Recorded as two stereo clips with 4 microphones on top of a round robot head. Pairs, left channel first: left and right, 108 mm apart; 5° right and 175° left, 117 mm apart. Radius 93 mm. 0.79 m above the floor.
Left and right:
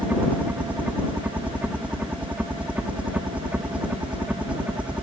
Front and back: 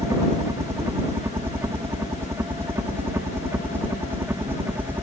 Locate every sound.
0.0 s a helicopter: 150° right; by 5.0 s 145° right